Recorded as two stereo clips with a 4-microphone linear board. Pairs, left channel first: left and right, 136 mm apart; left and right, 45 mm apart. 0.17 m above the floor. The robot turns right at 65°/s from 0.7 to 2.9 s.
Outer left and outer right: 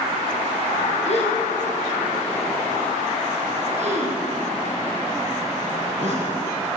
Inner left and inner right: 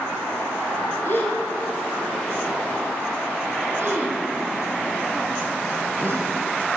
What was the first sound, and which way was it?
A gasp, 60° left (ahead or behind).